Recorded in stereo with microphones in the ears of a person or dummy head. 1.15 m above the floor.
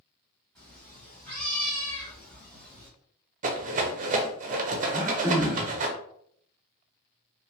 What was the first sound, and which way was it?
A cat meowing, 10° left (ahead or behind).